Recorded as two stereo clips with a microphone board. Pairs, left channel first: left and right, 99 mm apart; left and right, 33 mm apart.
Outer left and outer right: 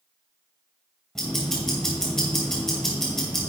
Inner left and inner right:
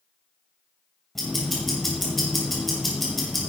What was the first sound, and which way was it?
Ticking, 5° left (ahead or behind).